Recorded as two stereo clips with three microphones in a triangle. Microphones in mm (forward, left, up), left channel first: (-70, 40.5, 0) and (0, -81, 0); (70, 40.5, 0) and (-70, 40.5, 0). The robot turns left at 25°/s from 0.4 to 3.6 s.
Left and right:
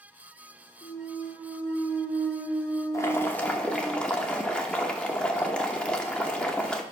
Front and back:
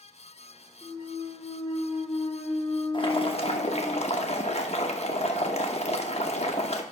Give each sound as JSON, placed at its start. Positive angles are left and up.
{"t": 0.8, "sound": "a clunk", "azimuth_deg": 75, "distance_m": 1.6}
{"t": 2.9, "sound": "boiling", "azimuth_deg": 55, "distance_m": 0.8}